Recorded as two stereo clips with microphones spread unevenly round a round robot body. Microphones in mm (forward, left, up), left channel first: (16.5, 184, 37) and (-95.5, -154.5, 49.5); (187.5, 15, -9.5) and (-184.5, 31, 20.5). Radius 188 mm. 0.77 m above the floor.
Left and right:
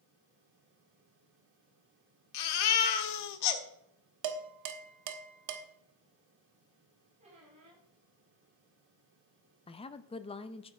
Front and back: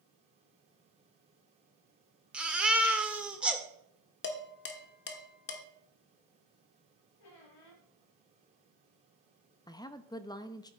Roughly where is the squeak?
Ahead right.